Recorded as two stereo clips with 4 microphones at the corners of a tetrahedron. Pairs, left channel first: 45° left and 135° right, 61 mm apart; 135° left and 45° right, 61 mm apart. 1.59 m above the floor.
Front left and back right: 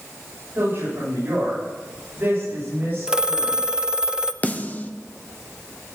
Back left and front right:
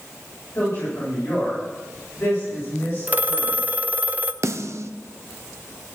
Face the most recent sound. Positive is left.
turn(degrees=-15)